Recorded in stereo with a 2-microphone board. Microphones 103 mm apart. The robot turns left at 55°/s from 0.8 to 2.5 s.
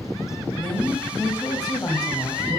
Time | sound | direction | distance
0.6 | a woman speaking | 150° left | 1.3 m